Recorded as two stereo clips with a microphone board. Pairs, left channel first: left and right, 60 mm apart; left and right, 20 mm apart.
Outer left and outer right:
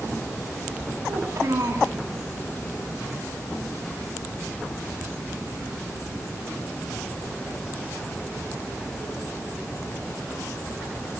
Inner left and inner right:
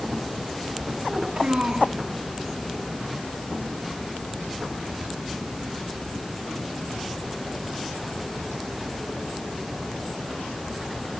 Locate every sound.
1.1 s a child speaking: 70° right (ahead or behind), 1.9 m